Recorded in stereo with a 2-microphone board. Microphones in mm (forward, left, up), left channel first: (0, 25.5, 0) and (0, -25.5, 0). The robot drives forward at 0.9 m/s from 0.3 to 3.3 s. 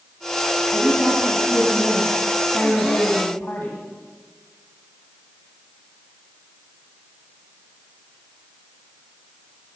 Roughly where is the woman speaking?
Left.